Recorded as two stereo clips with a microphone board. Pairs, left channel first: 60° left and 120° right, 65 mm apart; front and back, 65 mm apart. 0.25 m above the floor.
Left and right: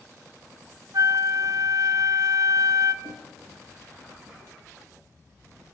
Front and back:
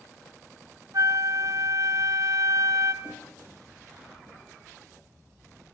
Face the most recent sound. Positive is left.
turn(degrees=-100)